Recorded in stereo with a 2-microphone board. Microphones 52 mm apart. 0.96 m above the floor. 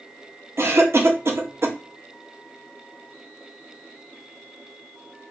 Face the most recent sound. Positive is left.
turn(degrees=-50)  # may be behind; listen again after turning